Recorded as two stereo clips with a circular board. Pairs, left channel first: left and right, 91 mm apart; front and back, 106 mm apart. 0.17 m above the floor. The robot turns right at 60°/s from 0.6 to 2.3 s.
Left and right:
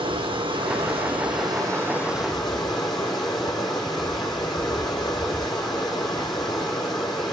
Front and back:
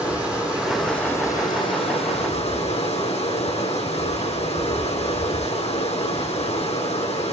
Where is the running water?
100° right, 6 m; by 7.3 s straight ahead, 6 m.